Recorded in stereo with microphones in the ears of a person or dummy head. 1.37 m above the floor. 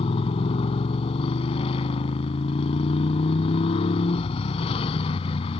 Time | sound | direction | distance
0.0 | a motorcycle | 35° left (ahead or behind) | ?